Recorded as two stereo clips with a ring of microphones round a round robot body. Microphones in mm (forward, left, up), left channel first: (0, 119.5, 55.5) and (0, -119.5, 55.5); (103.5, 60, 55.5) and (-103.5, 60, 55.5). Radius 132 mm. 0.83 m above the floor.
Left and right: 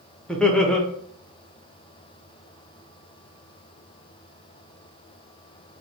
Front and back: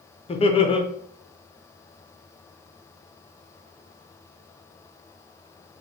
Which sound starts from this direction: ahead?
Laughter, at 0.3 s.